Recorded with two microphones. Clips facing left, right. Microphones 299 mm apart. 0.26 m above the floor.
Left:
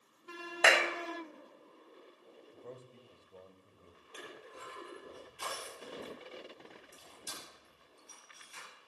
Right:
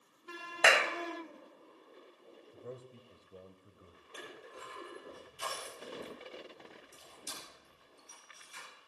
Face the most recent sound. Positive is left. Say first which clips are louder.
# right 1 dB
turn(degrees=70)  # may be behind; listen again after turning